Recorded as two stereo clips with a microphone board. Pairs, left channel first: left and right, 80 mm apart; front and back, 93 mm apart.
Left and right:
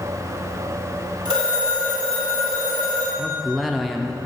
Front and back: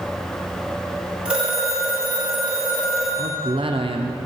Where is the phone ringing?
100° right, 4 m.